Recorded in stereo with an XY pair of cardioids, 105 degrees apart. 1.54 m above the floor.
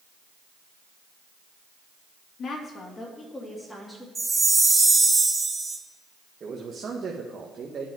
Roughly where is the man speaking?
Ahead right.